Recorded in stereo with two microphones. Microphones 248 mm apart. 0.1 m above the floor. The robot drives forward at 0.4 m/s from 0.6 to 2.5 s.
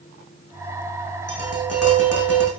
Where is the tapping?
75° left (ahead or behind), 6 m.